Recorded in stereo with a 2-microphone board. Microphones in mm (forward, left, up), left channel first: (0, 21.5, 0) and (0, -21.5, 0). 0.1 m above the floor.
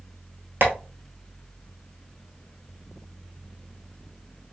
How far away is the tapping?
About 1.1 m.